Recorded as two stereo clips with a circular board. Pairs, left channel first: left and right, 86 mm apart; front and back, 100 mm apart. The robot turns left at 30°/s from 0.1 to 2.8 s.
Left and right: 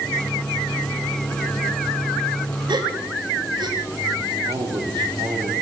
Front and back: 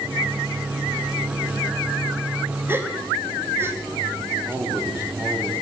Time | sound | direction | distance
2.7 | a gasp | 110° right | 2.5 m
4.5 | a man speaking | 110° right | 4 m